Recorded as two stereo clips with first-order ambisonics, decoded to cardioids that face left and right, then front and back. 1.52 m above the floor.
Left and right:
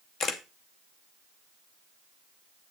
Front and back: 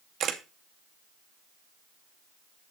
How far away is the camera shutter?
About 0.6 m.